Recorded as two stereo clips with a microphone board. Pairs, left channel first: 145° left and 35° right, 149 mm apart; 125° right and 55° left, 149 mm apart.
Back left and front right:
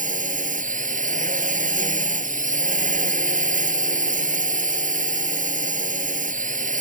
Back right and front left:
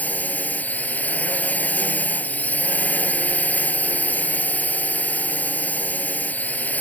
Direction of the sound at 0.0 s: 45° right.